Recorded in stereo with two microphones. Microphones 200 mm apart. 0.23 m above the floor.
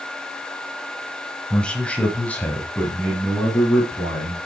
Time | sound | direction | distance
1.5 | a man speaking | 5° left (ahead or behind) | 1.1 m